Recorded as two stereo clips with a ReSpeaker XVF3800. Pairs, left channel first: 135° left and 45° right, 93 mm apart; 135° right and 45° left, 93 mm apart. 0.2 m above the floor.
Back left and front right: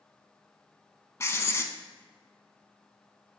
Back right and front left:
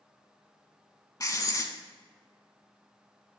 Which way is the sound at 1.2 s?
175° right.